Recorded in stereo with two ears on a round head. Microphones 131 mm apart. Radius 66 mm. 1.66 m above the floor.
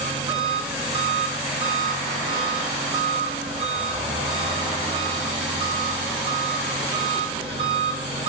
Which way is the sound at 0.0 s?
40° right (ahead or behind).